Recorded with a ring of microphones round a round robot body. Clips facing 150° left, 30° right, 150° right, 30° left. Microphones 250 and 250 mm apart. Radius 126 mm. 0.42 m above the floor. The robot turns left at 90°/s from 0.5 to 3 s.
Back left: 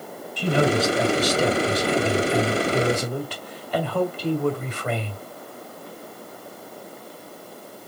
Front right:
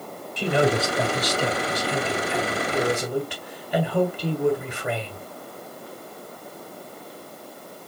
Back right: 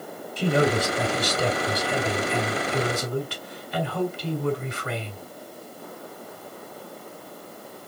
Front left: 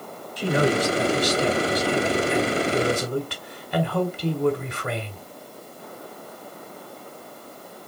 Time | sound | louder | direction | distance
0.4 | a man speaking | back left 1 dB, even | 90° right | 1.7 m